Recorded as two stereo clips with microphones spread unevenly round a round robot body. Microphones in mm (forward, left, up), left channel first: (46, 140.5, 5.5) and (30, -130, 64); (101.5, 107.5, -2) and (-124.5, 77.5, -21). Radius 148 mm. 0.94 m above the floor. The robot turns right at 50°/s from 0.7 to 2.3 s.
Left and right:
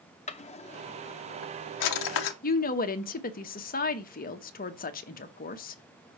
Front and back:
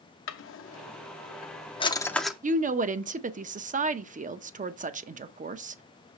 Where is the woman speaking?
135° left, 0.7 m.